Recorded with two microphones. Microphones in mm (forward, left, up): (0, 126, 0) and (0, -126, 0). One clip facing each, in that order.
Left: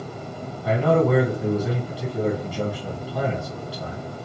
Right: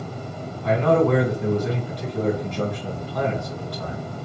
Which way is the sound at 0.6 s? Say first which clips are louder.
Right 1 dB; 5° left (ahead or behind).